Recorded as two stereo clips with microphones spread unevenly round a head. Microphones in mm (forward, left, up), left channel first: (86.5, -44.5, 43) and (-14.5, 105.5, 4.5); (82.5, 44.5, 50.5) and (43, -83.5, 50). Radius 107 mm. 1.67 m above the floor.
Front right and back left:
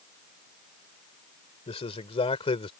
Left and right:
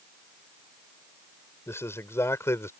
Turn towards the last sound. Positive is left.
turn(degrees=5)